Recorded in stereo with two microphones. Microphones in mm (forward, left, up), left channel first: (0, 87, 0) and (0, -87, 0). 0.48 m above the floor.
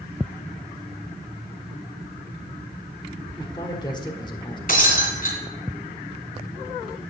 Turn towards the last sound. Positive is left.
turn(degrees=55)  # may be behind; listen again after turning